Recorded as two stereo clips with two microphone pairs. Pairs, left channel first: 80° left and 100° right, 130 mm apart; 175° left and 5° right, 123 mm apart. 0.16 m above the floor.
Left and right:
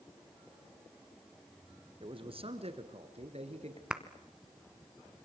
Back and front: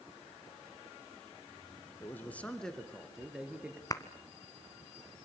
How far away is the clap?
About 1.4 m.